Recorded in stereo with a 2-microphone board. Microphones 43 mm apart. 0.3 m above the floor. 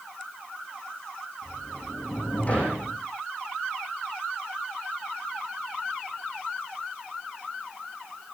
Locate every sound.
1.4 s a sliding door: 30° left (ahead or behind), 9 m